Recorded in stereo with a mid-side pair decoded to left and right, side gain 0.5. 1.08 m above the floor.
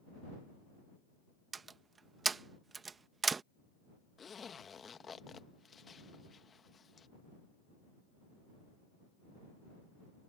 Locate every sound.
1.5 s a door slam: 30° right
4.2 s a zipper: 40° left